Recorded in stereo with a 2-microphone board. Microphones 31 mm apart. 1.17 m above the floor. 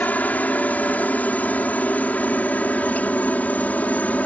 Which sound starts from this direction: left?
A helicopter, at 0.0 s.